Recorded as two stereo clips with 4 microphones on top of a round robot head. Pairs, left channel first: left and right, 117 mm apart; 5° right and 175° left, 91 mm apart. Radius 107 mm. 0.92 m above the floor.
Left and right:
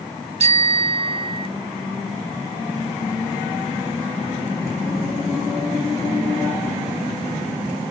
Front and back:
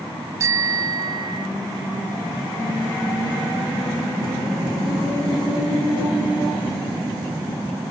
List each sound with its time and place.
0.4 s a bicycle bell: 120° right; by 1.5 s 135° right